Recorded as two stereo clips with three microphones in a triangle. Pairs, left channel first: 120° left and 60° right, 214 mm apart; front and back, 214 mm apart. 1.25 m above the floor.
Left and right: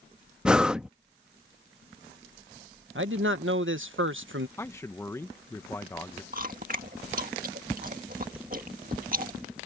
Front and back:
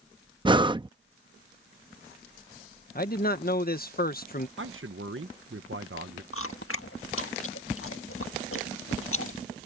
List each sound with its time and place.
0.5 s breathing: 140° right
3.0 s a man speaking: 45° right
4.6 s a man speaking: 165° right
6.3 s chewing: 10° right